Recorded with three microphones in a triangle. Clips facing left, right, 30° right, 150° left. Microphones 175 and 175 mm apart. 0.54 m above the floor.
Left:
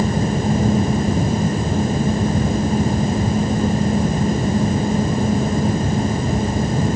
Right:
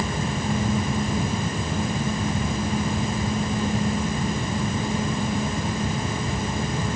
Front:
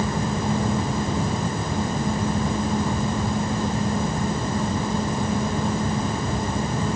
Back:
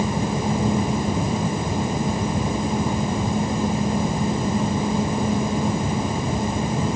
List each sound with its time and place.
Only background noise.